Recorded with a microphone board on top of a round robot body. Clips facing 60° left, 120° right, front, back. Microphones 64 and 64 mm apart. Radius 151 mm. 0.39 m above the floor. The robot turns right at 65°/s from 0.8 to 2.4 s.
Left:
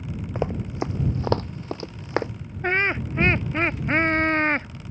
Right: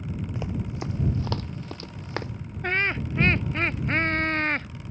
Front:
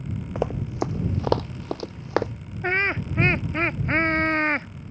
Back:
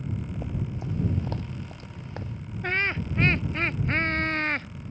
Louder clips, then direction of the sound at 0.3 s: Left 9 dB, front 8 dB; 5° left.